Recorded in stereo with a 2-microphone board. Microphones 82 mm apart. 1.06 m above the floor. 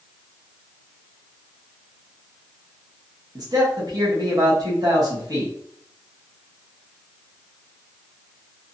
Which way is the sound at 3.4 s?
50° right (ahead or behind).